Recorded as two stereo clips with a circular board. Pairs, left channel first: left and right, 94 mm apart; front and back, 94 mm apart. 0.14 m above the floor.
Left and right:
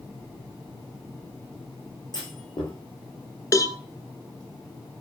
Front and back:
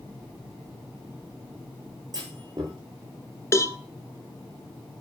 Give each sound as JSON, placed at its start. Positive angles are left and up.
{"t": 2.1, "sound": "a clunk", "azimuth_deg": 135, "distance_m": 7.5}
{"t": 3.5, "sound": "a cowbell", "azimuth_deg": 50, "distance_m": 0.8}